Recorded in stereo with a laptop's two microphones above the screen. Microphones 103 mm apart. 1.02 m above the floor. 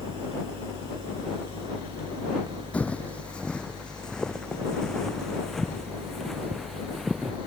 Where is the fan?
55° right (ahead or behind).